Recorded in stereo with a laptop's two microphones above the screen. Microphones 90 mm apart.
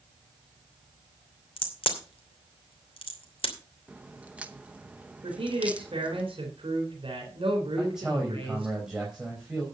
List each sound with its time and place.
1.6 s a crack: 85° left, 2.5 m
3.9 s a crack: 15° right (ahead or behind), 0.9 m
5.2 s a man speaking: 80° right, 4 m
7.8 s a man speaking: 10° right (ahead or behind), 4.5 m